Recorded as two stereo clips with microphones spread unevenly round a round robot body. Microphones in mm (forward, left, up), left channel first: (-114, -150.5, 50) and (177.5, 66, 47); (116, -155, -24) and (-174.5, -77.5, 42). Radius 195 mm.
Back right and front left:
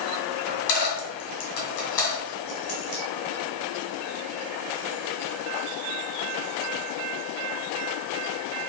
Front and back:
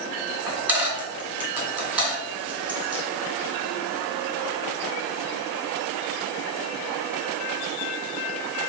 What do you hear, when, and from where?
0.5 s a dropped coin: 110° right, 2 m